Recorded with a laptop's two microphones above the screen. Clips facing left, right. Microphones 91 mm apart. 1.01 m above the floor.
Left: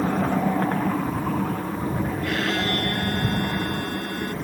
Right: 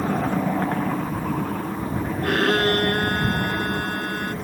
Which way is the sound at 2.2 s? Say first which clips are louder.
Right 9 dB; 50° right (ahead or behind).